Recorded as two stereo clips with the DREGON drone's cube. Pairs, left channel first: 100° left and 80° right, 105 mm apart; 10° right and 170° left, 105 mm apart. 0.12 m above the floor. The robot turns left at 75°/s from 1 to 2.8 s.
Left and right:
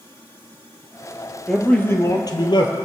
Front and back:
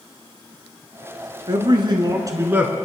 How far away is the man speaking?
About 1.5 m.